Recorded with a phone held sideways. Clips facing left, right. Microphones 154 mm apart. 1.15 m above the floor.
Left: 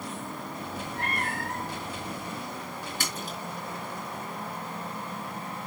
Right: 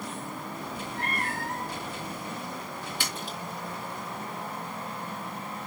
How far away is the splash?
About 4.5 m.